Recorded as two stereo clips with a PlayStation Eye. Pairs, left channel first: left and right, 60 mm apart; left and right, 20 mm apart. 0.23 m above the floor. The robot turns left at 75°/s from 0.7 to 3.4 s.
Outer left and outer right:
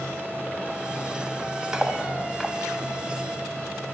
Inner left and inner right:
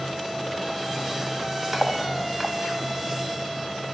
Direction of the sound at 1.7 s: 10° right (ahead or behind).